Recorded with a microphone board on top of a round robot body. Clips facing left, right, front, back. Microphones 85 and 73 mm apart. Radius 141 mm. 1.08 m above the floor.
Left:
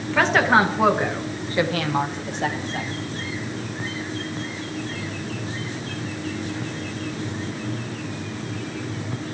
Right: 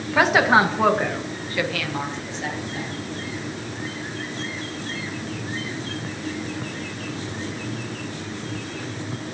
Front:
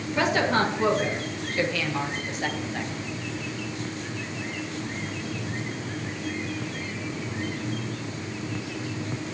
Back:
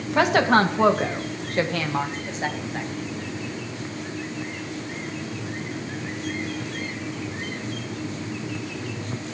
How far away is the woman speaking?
About 2 m.